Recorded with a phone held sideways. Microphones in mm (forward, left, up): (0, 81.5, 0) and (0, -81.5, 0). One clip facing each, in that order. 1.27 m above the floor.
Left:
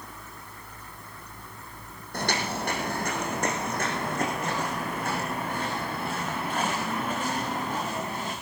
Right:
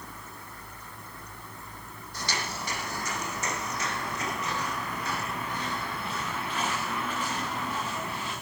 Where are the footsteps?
55° left (ahead or behind), 3 m; by 8.3 s 45° left (ahead or behind), 8 m.